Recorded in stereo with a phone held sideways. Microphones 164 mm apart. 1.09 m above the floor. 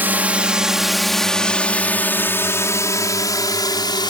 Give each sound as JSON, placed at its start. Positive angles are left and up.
{"t": 0.0, "sound": "a drone", "side_deg": -10}